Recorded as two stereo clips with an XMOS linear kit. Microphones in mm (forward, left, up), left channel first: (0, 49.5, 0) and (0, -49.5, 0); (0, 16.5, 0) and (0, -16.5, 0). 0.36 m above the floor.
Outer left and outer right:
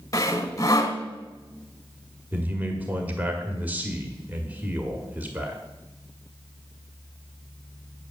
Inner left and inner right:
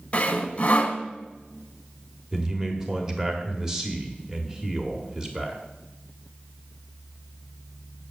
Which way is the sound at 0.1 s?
35° left (ahead or behind).